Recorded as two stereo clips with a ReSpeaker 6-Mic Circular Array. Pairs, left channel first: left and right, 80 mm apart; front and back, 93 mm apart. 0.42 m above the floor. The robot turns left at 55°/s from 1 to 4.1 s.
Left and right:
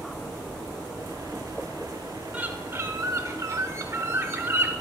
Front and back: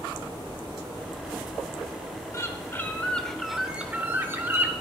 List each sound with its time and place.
2.3 s a bird: 30° right, 0.7 m; by 4.7 s 125° right, 0.7 m